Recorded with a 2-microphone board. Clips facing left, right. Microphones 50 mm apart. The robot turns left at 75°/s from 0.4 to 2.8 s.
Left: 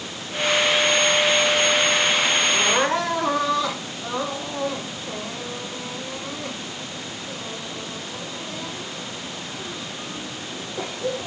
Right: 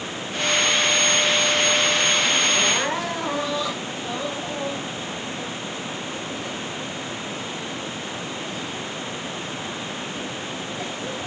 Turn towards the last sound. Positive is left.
turn(degrees=75)  # may be behind; listen again after turning